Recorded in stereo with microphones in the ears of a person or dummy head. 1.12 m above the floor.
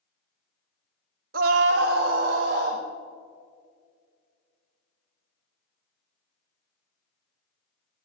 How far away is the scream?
About 0.7 m.